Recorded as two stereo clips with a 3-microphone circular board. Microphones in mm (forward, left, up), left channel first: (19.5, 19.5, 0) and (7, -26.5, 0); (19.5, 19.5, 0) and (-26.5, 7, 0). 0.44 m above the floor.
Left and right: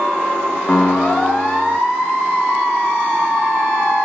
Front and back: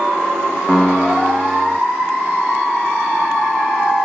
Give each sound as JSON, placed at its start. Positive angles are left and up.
{"t": 0.7, "sound": "a piano", "azimuth_deg": 115}